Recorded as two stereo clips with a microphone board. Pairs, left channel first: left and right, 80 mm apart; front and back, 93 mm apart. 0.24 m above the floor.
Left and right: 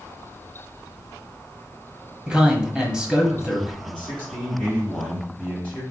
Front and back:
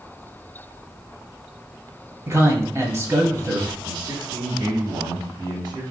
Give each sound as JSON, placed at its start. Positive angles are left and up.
{"t": 2.3, "sound": "a man speaking", "azimuth_deg": -160, "distance_m": 1.0}
{"t": 3.8, "sound": "a man speaking", "azimuth_deg": 165, "distance_m": 1.4}